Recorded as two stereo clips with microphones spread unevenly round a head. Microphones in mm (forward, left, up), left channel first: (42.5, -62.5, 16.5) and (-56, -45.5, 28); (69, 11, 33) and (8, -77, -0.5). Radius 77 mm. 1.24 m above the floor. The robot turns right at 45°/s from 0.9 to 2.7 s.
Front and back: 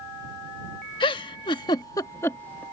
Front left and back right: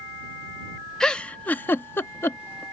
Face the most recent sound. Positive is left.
turn(degrees=80)